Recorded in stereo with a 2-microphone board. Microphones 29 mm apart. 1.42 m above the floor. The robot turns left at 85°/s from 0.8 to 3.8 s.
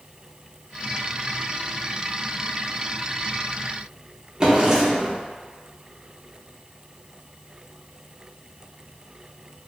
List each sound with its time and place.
4.4 s a drawer: 20° right (ahead or behind), 0.6 m